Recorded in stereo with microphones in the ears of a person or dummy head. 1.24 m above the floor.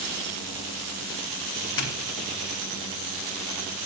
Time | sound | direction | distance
1.8 | a doorbell | 55° left (ahead or behind) | 3.5 m